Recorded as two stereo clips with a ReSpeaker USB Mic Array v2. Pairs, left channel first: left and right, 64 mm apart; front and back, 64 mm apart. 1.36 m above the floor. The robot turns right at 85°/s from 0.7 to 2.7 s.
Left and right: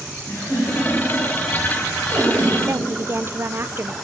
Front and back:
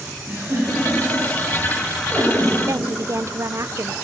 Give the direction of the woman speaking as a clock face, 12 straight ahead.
5 o'clock.